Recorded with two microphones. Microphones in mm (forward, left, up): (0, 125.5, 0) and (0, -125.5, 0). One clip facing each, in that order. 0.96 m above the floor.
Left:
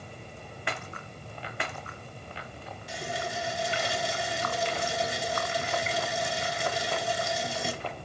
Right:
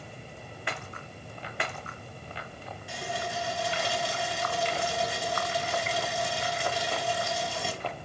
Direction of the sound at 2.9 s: 20° left (ahead or behind).